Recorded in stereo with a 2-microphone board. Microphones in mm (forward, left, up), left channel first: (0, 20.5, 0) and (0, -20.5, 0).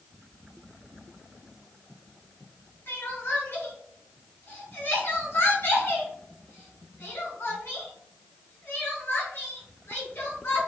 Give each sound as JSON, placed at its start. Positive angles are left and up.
{"t": 2.9, "sound": "crying", "side_deg": 65, "distance_m": 1.4}